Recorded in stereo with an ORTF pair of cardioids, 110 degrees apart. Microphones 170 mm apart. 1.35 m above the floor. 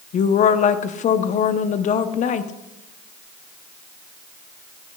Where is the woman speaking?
50° left, 0.7 m.